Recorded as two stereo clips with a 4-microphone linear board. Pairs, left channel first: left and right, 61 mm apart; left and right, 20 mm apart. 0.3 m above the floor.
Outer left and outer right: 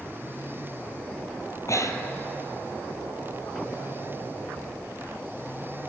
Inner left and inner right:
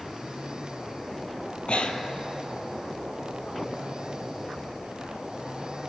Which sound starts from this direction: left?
Breathing, at 1.7 s.